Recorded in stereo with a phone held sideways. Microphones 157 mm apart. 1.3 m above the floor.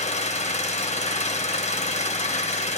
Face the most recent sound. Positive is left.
turn(degrees=45)  # may be behind; listen again after turning